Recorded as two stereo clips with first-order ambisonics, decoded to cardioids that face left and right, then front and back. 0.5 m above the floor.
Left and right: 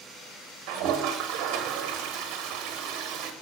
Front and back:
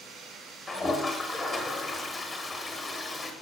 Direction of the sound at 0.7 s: 75° right.